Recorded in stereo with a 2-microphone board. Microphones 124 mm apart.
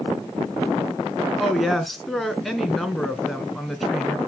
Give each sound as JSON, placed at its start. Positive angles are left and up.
{"t": 1.4, "sound": "a woman speaking", "side_deg": 0, "distance_m": 1.6}